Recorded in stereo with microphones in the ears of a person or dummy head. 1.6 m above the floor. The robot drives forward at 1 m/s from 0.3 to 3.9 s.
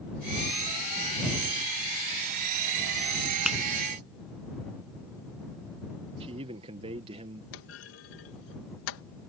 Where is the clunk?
80° left.